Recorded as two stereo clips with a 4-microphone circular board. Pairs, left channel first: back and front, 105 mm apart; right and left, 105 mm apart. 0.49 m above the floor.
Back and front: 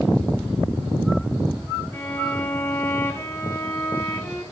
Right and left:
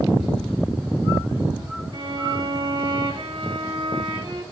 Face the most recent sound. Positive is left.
turn(degrees=115)